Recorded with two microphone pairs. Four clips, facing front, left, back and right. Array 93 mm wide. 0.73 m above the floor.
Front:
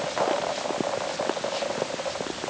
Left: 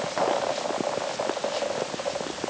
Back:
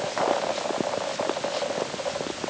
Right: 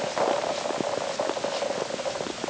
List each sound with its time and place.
Only background noise.